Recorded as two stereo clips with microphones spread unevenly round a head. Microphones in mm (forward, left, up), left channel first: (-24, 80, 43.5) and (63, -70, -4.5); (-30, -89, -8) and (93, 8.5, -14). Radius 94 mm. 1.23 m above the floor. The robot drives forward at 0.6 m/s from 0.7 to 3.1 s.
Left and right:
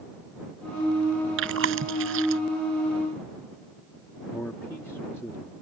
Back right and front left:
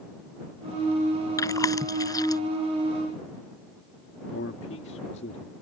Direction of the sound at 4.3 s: 160° right.